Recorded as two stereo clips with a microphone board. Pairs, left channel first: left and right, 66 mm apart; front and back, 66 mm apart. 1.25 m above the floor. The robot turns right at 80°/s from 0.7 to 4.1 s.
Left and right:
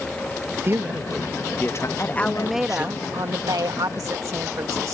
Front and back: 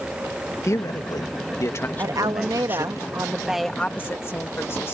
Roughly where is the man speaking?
Ahead right.